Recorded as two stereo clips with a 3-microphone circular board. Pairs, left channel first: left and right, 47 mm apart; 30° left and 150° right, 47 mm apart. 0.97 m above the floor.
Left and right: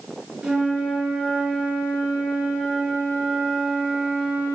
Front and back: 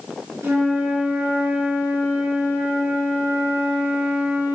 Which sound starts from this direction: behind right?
A flute, at 0.4 s.